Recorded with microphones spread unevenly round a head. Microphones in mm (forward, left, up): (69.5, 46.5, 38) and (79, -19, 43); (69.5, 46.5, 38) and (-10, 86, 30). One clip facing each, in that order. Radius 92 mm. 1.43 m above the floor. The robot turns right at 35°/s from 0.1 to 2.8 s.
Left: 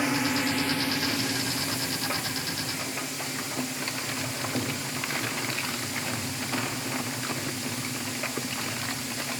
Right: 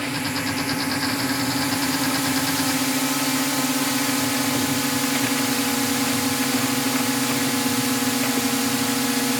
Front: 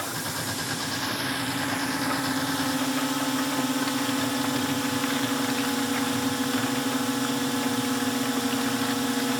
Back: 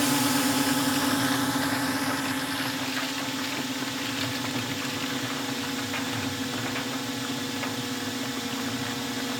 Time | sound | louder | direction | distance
0.0 | a drone | even, back 8 dB | 175° left | ?